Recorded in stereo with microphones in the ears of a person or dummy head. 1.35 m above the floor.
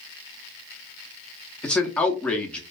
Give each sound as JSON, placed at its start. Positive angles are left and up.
{"t": 1.6, "sound": "a man speaking", "side_deg": 10, "distance_m": 0.6}